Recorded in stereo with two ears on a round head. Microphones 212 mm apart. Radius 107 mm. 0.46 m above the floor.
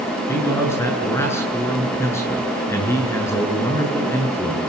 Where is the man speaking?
10° left (ahead or behind), 7.5 m.